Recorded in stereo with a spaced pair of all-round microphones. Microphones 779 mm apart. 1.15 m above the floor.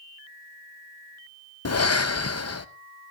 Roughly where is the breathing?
Left.